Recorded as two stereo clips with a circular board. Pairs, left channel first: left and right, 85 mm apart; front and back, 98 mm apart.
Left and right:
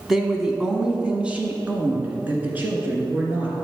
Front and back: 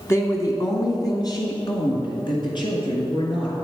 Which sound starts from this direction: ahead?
A woman speaking, at 0.1 s.